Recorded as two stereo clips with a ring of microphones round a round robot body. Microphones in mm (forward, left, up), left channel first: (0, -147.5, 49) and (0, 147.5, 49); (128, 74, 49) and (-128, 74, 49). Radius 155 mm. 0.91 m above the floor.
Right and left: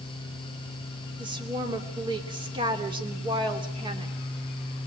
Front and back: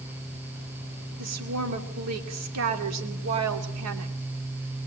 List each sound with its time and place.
1.2 s a woman speaking: 165° left, 3 m